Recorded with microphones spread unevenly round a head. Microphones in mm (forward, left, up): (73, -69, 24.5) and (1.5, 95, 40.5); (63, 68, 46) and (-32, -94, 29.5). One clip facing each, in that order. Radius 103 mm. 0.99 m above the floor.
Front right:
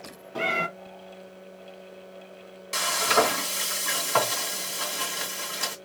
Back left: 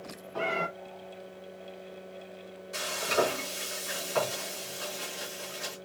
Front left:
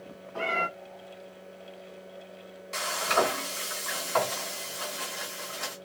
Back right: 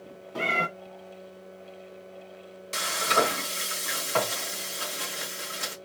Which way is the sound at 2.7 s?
65° right.